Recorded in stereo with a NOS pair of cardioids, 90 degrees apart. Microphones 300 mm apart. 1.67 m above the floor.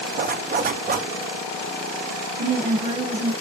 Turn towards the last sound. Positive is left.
turn(degrees=-30)